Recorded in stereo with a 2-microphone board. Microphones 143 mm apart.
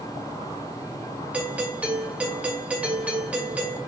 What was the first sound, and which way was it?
A doorbell, 10° right (ahead or behind).